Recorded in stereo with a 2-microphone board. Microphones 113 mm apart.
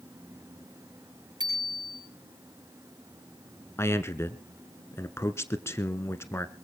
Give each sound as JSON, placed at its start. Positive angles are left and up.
{"t": 1.4, "sound": "a bicycle bell", "side_deg": -40, "distance_m": 7.0}
{"t": 3.8, "sound": "a man speaking", "side_deg": 20, "distance_m": 1.1}